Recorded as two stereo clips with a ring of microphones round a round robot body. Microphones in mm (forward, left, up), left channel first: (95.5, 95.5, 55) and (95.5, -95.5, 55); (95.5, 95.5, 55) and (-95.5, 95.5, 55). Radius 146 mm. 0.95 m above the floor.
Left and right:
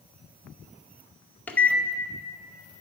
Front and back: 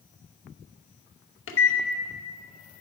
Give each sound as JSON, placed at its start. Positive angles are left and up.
{"t": 1.5, "sound": "a microwave", "azimuth_deg": 5, "distance_m": 0.8}